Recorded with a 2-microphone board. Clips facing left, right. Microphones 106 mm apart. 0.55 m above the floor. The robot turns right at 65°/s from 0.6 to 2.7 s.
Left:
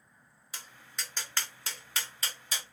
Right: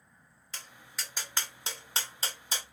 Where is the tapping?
10° left (ahead or behind), 1.2 m; by 2.6 s 30° right (ahead or behind), 1.2 m.